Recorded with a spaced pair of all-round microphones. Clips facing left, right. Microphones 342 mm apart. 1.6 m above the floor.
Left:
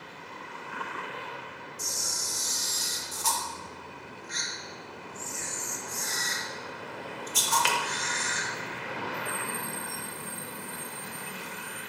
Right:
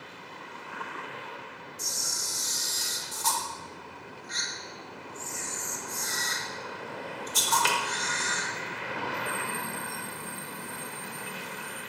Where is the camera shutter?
50° right (ahead or behind), 1.3 m.